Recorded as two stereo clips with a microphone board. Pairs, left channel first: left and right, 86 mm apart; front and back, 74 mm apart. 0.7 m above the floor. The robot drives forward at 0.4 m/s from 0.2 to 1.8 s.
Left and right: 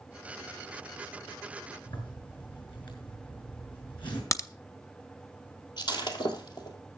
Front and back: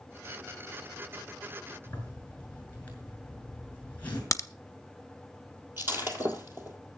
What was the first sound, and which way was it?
A zipper, 65° left.